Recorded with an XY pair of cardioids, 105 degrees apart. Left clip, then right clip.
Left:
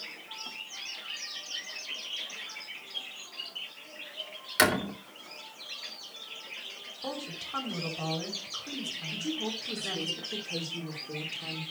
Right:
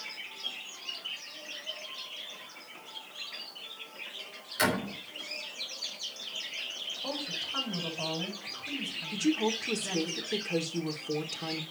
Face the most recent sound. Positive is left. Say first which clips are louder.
# right 7 dB
turn(degrees=-45)